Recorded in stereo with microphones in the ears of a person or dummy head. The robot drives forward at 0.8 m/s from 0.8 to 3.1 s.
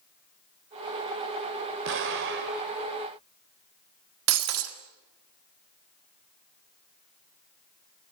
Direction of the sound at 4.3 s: 80° right.